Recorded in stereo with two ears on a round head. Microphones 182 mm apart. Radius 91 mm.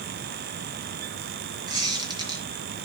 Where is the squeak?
20° right (ahead or behind), 1.8 m.